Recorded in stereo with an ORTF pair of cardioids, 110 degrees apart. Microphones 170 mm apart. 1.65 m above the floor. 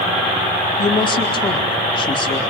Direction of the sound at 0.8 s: 30° left.